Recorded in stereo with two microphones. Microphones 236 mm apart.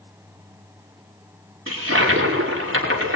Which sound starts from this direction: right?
A toilet flushing, at 1.7 s.